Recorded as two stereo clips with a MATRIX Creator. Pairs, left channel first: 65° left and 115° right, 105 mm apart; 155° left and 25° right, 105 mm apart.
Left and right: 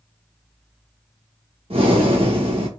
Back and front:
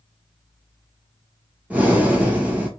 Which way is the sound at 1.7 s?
95° right.